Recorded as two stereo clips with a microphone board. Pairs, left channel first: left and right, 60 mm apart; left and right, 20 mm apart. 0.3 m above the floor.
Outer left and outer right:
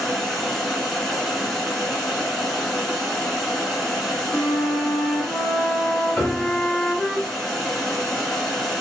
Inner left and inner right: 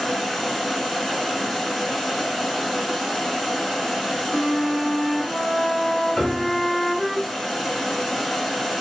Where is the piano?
20° left (ahead or behind), 0.7 m.